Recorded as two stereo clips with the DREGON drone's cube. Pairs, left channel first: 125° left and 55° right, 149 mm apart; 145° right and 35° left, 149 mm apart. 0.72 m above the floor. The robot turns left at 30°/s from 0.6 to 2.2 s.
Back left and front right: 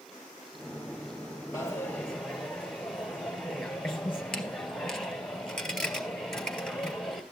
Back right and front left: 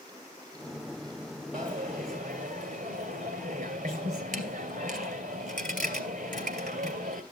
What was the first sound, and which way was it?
A dropped coin, 60° left.